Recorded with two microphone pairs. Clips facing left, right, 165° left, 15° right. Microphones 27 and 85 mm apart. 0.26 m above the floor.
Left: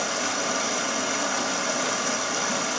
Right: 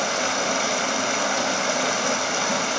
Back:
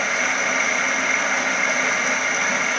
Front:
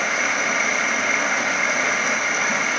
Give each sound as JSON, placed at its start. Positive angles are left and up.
{"t": 0.0, "sound": "running water", "azimuth_deg": -95, "distance_m": 0.9}